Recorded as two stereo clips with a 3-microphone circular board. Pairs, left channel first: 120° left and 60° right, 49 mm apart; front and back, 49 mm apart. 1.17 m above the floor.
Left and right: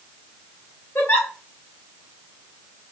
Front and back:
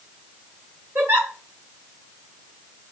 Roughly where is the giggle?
Behind.